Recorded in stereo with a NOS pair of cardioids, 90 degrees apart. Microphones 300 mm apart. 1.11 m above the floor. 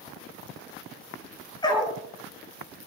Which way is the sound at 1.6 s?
15° left.